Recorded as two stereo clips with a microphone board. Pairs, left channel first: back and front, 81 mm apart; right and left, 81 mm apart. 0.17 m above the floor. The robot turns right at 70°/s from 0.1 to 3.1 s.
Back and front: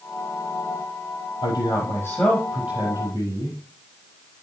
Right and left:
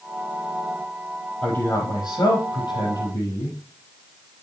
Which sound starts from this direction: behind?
A man speaking, at 1.4 s.